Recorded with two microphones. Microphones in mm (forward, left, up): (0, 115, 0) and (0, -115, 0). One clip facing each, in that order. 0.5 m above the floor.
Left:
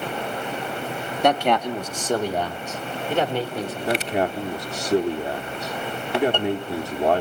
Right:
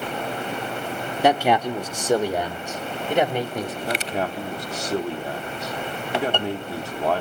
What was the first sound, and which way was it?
A man speaking, 5° right (ahead or behind).